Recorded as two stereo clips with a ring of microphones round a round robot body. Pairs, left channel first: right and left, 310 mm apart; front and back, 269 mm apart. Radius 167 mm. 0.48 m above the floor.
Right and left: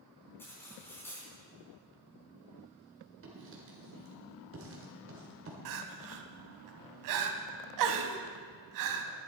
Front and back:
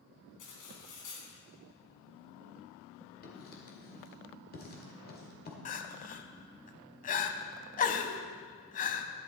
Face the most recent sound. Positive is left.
turn(degrees=60)